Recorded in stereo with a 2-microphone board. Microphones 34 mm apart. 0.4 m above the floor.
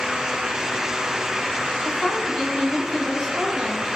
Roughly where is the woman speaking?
Centre.